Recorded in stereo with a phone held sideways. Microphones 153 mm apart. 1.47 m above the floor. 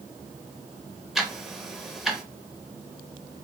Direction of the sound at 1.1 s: Centre (ahead or behind).